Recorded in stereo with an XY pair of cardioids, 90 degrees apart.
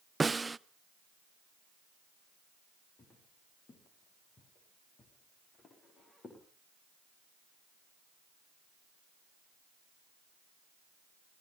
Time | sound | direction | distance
0.2 | a snare drum | 20° right | 0.5 m
3.0 | footsteps | 45° left | 5 m